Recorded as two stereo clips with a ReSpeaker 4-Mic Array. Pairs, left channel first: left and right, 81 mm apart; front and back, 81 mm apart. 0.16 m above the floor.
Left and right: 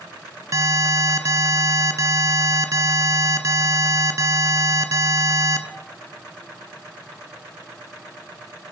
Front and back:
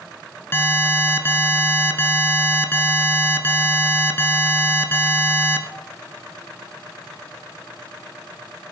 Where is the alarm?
55° right, 1.4 m.